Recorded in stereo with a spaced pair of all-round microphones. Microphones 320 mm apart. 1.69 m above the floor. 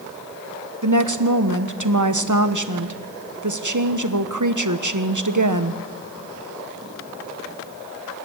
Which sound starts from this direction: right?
A woman speaking, at 0.8 s.